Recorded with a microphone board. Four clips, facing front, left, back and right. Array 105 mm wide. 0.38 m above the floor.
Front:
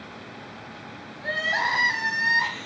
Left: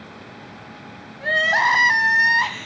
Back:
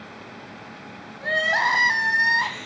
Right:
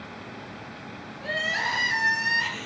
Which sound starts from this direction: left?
Crying, at 1.2 s.